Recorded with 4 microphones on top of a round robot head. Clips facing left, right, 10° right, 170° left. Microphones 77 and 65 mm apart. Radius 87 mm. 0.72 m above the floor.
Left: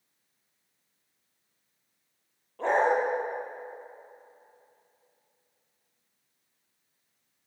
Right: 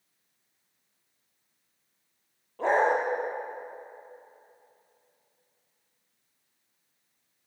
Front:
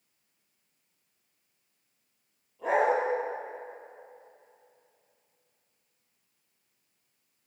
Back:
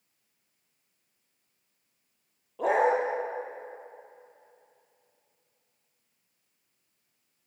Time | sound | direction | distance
2.6 | a dog barking | 175° right | 7 m